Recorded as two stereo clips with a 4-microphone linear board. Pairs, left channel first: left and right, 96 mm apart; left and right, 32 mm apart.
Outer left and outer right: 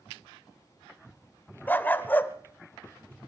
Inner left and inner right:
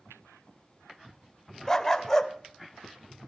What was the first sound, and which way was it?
A dog barking, 20° left (ahead or behind).